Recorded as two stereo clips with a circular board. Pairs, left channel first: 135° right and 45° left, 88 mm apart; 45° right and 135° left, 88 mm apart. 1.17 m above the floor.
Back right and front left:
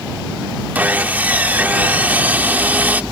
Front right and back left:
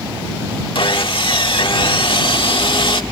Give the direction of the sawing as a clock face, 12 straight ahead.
1 o'clock.